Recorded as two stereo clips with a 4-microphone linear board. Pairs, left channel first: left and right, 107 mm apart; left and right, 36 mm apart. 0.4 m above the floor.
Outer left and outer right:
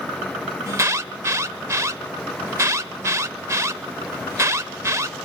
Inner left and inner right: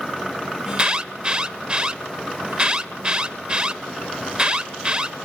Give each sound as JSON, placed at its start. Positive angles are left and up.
{"t": 0.7, "sound": "an alarm", "side_deg": -30, "distance_m": 0.7}